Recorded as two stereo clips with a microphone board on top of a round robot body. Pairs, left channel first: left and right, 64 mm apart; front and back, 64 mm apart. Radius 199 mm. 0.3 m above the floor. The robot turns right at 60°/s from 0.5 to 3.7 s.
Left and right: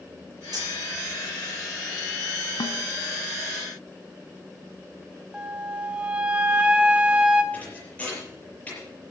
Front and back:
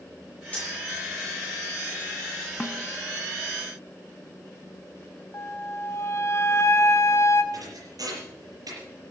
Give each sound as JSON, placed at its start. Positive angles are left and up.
{"t": 0.5, "sound": "cutlery clinking", "azimuth_deg": -70, "distance_m": 5.5}
{"t": 2.6, "sound": "a snare drum", "azimuth_deg": 75, "distance_m": 1.1}
{"t": 5.3, "sound": "a flute", "azimuth_deg": -20, "distance_m": 1.8}
{"t": 7.5, "sound": "a thud", "azimuth_deg": 160, "distance_m": 7.0}